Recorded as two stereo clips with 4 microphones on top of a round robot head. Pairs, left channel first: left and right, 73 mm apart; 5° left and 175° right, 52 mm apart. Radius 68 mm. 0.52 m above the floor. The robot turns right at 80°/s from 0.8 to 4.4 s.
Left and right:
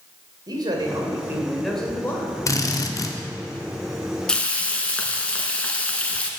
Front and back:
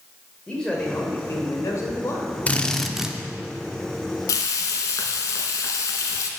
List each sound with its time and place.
0.5 s a man speaking: 70° right, 2.5 m; by 2.4 s 55° left, 2.5 m
2.5 s a drill: 60° left, 1.1 m; by 3.2 s 115° left, 1.1 m
4.3 s frying: 10° left, 1.1 m; by 6.3 s 20° left, 1.1 m